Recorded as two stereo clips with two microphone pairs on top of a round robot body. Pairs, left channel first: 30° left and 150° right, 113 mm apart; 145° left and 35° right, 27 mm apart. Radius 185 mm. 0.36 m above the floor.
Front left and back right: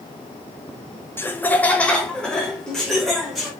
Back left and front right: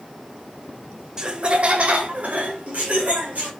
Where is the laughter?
10° right, 0.9 m; by 3.5 s 60° right, 2.5 m.